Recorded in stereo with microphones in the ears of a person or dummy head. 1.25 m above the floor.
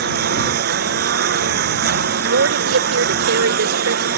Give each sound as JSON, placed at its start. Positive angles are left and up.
{"t": 0.0, "sound": "a lawn mower", "side_deg": -55}
{"t": 2.2, "sound": "a woman speaking", "side_deg": -90}